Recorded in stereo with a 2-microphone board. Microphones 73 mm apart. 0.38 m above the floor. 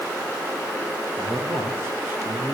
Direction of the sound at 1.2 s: 35° right (ahead or behind).